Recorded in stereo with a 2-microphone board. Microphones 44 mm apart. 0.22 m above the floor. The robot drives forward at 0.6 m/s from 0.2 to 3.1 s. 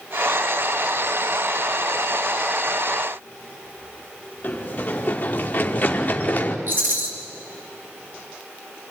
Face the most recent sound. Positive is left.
turn(degrees=-50)  # may be behind; listen again after turning